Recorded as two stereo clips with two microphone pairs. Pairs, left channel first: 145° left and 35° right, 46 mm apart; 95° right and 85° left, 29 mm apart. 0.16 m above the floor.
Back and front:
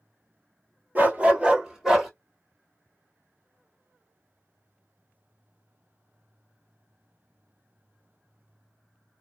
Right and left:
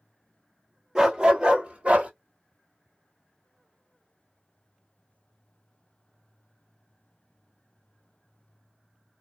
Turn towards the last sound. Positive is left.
turn(degrees=50)